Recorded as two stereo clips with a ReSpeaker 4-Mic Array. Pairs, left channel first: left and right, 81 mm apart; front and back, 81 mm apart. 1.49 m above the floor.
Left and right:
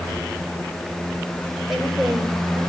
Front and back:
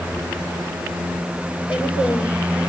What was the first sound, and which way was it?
A woman speaking, straight ahead.